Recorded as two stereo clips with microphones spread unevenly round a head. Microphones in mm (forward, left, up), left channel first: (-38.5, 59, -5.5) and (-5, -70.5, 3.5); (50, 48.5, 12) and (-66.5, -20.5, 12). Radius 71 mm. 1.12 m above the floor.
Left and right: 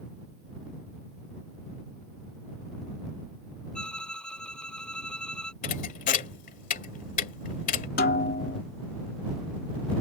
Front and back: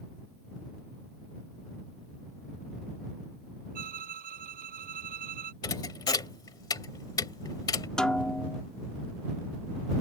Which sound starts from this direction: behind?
A violin, at 3.8 s.